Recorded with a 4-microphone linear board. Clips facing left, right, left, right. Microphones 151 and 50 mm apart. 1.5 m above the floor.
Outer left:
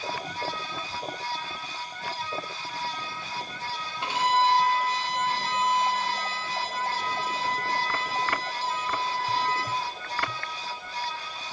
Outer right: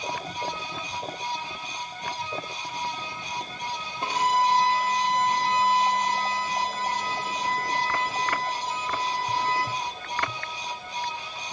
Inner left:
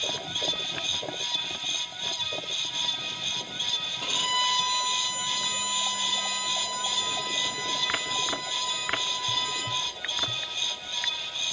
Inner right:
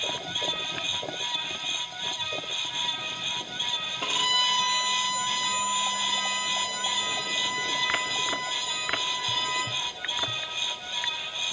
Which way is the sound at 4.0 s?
40° right (ahead or behind).